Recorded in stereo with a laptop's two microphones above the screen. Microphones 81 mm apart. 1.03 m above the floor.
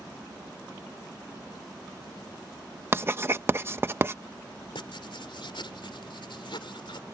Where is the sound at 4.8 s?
85° left.